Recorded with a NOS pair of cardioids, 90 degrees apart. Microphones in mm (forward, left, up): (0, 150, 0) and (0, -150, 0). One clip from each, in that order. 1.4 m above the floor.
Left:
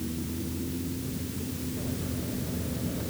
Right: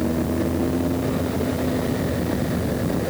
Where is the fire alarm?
I don't hear a fire alarm.